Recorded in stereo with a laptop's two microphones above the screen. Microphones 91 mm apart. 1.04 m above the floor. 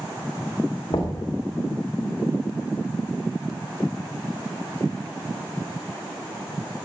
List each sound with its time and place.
0.9 s knocking: 70° left (ahead or behind), 1.4 m